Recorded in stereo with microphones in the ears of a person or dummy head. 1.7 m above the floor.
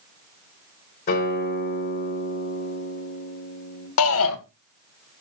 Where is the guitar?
45° left (ahead or behind), 5 m.